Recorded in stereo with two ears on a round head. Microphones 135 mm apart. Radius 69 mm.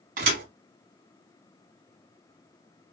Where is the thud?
55° right (ahead or behind), 1.9 m.